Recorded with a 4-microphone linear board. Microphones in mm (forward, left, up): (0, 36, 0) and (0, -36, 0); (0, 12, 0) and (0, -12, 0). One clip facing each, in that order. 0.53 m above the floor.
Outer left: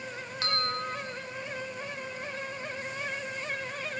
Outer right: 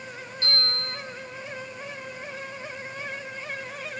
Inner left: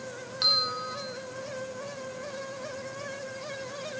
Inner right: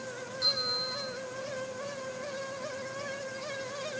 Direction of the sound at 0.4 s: 80° left.